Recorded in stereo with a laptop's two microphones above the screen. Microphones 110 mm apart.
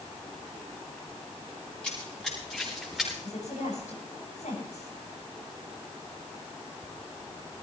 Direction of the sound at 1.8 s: 10° left (ahead or behind).